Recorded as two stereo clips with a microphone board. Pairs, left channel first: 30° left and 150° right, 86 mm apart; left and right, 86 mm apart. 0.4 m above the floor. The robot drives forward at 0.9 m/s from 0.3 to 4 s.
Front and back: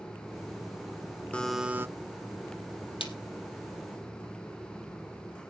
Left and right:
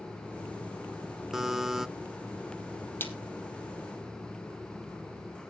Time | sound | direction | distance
1.3 | a buzzer | 15° right | 0.6 m
3.0 | a splash | 20° left | 2.5 m